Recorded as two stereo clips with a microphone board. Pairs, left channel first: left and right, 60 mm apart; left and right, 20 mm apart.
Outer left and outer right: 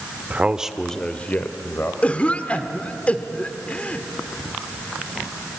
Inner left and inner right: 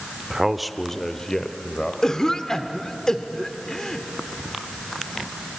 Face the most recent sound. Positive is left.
turn(degrees=25)  # may be behind; listen again after turning